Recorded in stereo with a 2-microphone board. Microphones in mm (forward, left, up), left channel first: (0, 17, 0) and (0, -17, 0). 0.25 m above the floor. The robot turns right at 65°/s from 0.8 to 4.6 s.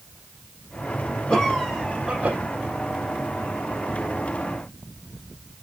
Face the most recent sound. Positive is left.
turn(degrees=15)